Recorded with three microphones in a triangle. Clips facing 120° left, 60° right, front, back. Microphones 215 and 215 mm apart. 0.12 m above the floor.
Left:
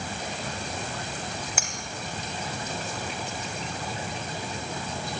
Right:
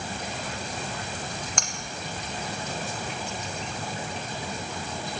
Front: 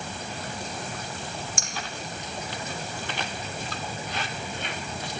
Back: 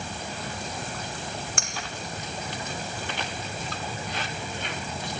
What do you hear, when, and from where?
1.6 s cutlery clinking: 155° right, 3.5 m